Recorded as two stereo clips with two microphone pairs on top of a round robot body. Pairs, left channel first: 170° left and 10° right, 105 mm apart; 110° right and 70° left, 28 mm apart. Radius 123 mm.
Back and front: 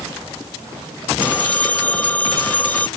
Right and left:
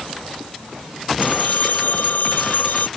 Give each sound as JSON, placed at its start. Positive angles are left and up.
{"t": 1.2, "sound": "a phone ringing", "azimuth_deg": -115}